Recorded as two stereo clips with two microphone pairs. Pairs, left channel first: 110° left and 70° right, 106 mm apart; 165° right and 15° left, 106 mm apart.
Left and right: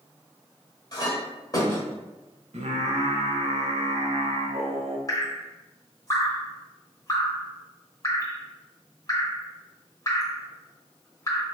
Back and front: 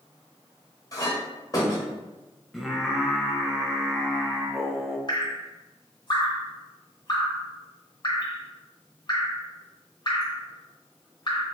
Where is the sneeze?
No sneeze in this recording.